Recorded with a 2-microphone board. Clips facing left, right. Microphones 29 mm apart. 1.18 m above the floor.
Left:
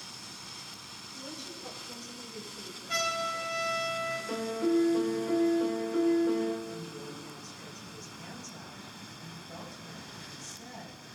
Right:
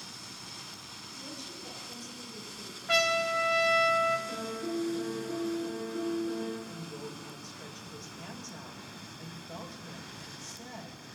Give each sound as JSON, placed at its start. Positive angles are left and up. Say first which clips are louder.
{"t": 1.1, "sound": "a woman speaking", "louder": "left 1 dB", "side_deg": 15, "distance_m": 3.5}
{"t": 2.9, "sound": "a trumpet", "louder": "right 5 dB", "side_deg": -80, "distance_m": 1.5}
{"t": 4.3, "sound": "a piano", "louder": "left 6 dB", "side_deg": 85, "distance_m": 1.3}
{"t": 6.7, "sound": "a woman speaking", "louder": "left 1 dB", "side_deg": -30, "distance_m": 3.5}